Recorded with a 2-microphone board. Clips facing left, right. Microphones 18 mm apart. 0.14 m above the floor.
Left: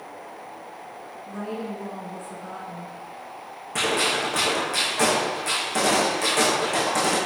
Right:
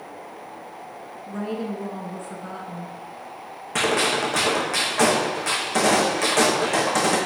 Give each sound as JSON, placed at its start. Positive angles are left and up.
{"t": 1.3, "sound": "a woman speaking", "side_deg": -25, "distance_m": 1.3}
{"t": 3.8, "sound": "a gunshot", "side_deg": -30, "distance_m": 2.0}